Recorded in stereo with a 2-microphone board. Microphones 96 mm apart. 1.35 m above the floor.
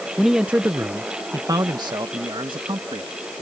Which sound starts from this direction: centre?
A man speaking, at 0.2 s.